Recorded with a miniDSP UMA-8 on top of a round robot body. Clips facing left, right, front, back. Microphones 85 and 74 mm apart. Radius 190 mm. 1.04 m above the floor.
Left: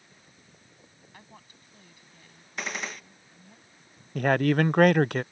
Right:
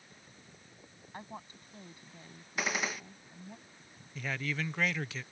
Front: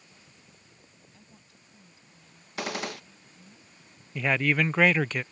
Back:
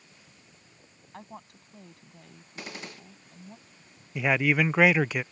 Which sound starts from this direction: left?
A man speaking, at 4.2 s.